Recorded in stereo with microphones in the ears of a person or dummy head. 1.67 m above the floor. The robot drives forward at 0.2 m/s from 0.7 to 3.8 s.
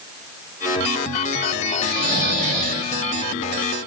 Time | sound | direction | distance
1.8 | snoring | 65° right (ahead or behind) | 0.9 m